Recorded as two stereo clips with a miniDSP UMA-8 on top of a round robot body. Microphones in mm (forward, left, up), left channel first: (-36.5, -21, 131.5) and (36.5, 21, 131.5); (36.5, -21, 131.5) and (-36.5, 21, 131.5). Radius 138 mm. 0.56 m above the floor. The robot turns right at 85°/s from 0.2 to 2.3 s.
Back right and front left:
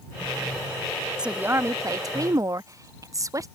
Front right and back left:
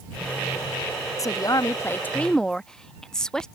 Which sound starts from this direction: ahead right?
A woman speaking, at 1.2 s.